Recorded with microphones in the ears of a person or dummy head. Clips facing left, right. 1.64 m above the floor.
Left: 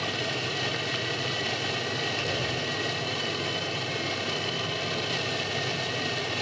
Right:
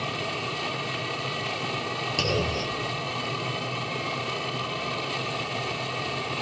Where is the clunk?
55° right (ahead or behind).